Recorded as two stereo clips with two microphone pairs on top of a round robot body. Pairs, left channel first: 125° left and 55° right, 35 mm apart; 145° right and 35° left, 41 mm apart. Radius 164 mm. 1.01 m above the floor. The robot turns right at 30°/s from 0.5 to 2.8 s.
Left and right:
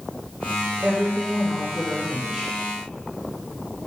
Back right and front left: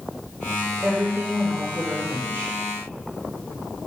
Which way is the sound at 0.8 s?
20° right.